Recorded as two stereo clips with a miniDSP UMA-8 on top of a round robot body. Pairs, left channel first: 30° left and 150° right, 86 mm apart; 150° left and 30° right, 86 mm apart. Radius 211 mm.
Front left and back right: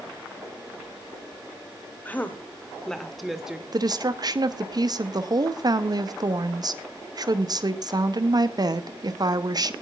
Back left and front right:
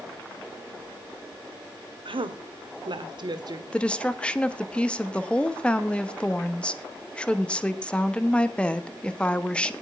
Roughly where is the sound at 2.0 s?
Ahead right.